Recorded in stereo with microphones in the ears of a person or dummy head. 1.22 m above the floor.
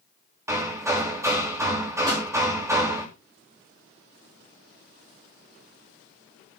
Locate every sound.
0.5 s hammering: 15° right (ahead or behind), 2.5 m
2.1 s a pop: 20° right (ahead or behind), 3.5 m